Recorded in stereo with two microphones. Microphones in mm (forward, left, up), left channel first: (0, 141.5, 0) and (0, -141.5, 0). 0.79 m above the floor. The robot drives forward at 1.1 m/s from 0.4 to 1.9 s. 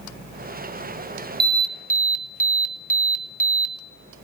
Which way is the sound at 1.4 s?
30° right (ahead or behind).